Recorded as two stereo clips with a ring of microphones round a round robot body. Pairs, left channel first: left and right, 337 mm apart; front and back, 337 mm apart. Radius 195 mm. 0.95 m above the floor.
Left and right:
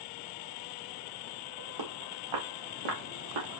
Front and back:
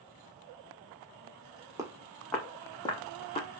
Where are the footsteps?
100° right, 3.5 m; by 3.5 s 70° right, 4 m.